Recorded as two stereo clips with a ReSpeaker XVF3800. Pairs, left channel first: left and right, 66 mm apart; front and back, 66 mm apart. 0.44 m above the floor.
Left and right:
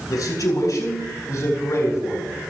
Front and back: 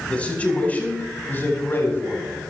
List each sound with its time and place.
0.1 s a man speaking: 70° left, 6.5 m; by 2.4 s 50° left, 6.5 m